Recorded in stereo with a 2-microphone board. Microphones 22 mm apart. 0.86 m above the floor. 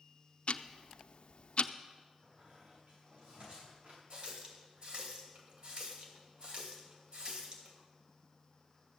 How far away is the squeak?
About 7.5 m.